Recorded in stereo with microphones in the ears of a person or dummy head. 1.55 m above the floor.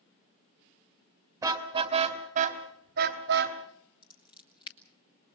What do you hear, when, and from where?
1.4 s a car horn: 15° right (ahead or behind), 2 m; by 3.6 s 65° right (ahead or behind), 3 m
4.0 s scissors: 30° left (ahead or behind), 1.5 m